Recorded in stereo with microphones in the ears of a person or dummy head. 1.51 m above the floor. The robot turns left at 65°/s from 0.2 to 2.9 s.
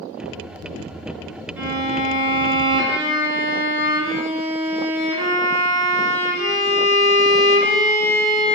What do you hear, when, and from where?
1.6 s a violin: 10° right, 1.5 m; by 8.6 s 95° right, 1.5 m